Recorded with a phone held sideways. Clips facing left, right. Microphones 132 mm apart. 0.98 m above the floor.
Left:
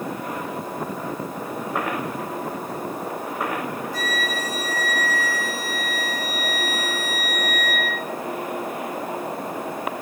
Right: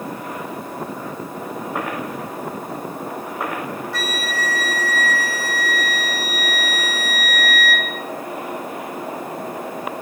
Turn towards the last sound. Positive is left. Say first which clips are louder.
# right 1 dB
turn(degrees=-75)  # may be behind; listen again after turning